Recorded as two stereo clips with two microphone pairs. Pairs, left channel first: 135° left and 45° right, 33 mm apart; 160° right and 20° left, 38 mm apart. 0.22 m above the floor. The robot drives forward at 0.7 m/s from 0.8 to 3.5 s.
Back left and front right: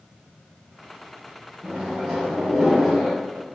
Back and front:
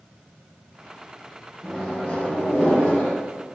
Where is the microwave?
90° right, 1.3 m; by 3.1 s 145° right, 1.7 m.